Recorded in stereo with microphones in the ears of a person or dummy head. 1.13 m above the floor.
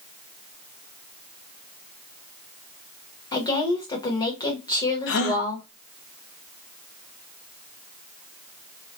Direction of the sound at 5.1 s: 70° left (ahead or behind).